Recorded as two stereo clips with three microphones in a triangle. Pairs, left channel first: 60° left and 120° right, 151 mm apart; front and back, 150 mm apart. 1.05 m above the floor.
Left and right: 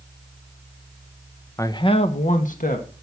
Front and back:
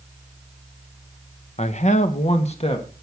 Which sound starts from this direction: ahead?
A man speaking, at 1.6 s.